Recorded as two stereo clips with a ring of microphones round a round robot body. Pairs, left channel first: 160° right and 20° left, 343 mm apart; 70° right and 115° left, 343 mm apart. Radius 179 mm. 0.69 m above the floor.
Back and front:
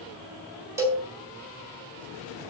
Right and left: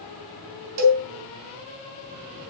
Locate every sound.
0.8 s a cowbell: 105° left, 3 m